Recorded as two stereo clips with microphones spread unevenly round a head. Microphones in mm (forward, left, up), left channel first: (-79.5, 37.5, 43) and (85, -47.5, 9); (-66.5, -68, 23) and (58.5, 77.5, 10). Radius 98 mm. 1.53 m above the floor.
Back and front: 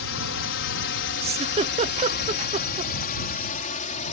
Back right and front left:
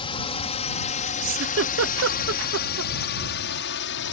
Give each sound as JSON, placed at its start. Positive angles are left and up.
{"t": 0.0, "sound": "a drone", "azimuth_deg": 165}
{"t": 1.2, "sound": "a giggle", "azimuth_deg": 30}